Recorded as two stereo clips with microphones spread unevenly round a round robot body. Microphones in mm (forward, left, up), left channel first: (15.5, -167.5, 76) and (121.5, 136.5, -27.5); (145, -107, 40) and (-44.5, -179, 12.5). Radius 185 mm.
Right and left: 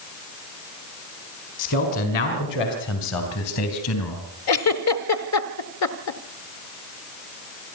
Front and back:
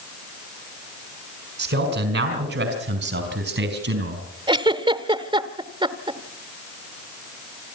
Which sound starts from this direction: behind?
A man speaking, at 1.6 s.